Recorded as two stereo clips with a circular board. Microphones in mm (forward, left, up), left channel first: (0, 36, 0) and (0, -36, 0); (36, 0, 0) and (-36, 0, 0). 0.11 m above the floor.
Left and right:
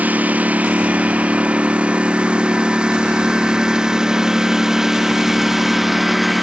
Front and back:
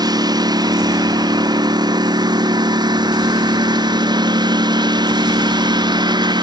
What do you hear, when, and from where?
0.0 s a lawn mower: 155° right; by 6.4 s 175° right